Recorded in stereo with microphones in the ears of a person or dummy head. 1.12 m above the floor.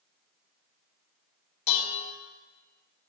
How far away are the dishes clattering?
About 3 m.